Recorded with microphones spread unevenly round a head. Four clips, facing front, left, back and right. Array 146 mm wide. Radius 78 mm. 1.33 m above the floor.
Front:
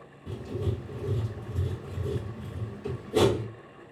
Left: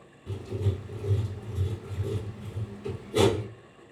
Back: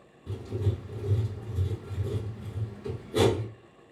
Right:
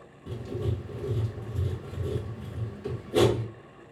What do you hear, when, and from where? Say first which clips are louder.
0.3 s writing: right 1 dB, front 1 dB; 50° right, 1.8 m